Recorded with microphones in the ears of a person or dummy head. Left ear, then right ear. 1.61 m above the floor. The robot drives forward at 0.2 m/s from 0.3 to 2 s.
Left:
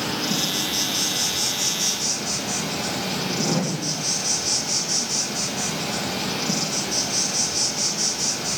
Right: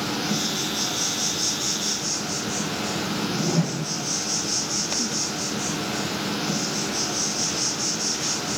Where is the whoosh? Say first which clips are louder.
Left 2 dB; 40° left (ahead or behind), 0.6 m.